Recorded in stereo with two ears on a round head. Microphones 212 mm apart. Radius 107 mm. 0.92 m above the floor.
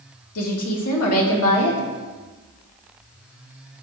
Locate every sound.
0.3 s a woman speaking: 65° left (ahead or behind), 2.0 m